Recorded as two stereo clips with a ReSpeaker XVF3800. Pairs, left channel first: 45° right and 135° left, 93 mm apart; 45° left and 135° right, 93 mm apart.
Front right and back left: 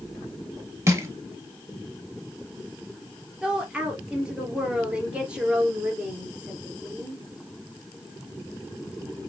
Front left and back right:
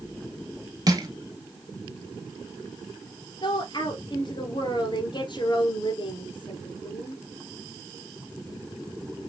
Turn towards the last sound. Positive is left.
turn(degrees=55)